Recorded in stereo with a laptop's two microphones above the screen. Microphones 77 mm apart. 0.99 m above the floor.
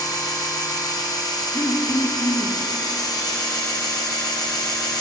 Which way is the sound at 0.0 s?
60° left (ahead or behind).